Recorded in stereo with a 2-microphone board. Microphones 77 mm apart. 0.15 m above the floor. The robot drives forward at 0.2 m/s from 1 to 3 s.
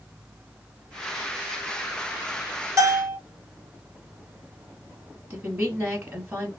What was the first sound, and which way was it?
A bell, 40° right (ahead or behind).